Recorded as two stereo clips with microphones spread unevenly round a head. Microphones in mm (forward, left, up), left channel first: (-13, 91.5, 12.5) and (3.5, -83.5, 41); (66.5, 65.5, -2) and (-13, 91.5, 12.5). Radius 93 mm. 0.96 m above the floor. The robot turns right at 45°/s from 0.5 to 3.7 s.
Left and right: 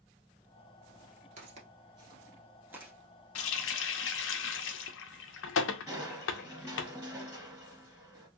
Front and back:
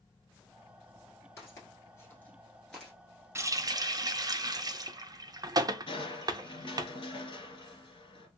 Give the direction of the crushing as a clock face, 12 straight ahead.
12 o'clock.